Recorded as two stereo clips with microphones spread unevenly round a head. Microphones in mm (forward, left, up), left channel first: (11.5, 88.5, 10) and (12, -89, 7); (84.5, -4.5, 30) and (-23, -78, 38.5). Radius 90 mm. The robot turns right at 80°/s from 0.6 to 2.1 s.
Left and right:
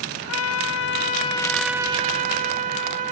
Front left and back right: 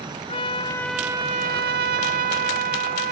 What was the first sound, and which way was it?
A trumpet, 100° left.